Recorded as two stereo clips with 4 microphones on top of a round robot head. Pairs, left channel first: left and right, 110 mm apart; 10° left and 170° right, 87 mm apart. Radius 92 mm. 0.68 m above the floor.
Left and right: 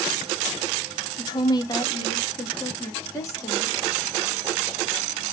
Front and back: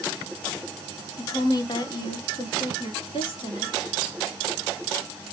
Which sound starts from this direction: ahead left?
A woman speaking, at 1.2 s.